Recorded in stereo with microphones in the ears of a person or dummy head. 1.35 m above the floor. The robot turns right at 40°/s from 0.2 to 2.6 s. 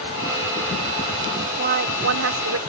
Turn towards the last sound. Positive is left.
turn(degrees=-90)